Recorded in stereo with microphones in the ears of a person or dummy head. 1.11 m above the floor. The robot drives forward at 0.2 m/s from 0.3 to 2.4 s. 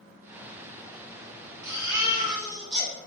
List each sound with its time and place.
1.6 s a baby crying: 25° right (ahead or behind), 0.7 m; by 2.9 s 30° right (ahead or behind), 0.6 m